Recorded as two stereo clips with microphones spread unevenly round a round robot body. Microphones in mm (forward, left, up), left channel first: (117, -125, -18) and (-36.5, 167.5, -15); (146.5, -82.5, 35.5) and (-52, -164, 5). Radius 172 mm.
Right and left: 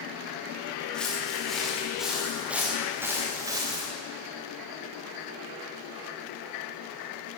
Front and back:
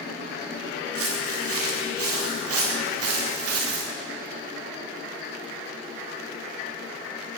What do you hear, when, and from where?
0.9 s footsteps: 150° right, 6.5 m; by 3.9 s 165° right, 4 m